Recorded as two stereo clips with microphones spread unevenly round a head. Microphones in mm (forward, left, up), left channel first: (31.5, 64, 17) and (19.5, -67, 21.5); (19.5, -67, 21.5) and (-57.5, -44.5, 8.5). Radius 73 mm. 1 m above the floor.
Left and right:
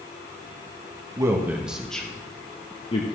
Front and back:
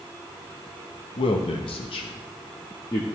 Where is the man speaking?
30° right, 1.1 m; by 3.1 s 45° left, 1.0 m.